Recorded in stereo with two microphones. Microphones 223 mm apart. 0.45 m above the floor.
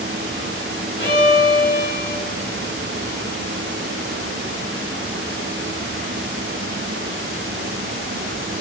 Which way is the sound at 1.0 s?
55° left (ahead or behind).